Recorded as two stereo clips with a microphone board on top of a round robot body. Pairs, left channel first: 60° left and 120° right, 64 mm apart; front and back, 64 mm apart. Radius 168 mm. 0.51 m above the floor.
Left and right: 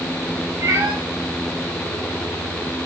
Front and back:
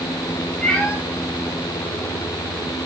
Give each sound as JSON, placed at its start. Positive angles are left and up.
{"t": 0.6, "sound": "a cat meowing", "azimuth_deg": -75, "distance_m": 6.5}